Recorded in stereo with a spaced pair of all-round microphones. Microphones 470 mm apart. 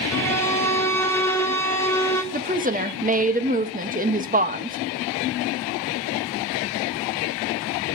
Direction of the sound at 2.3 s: 20° right (ahead or behind).